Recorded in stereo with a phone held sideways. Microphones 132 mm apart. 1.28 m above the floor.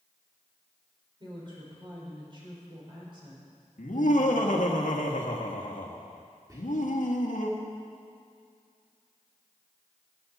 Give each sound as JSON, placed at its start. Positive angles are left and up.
{"t": 1.2, "sound": "a woman speaking", "side_deg": -35, "distance_m": 4.5}
{"t": 3.8, "sound": "laughter", "side_deg": 70, "distance_m": 1.6}
{"t": 6.5, "sound": "whispering", "side_deg": -25, "distance_m": 3.5}